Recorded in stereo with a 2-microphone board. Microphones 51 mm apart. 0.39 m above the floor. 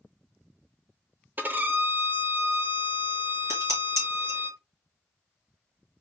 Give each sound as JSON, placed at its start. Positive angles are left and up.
{"t": 1.4, "sound": "a violin", "side_deg": -35, "distance_m": 0.7}
{"t": 3.5, "sound": "dishes clattering", "side_deg": -70, "distance_m": 2.5}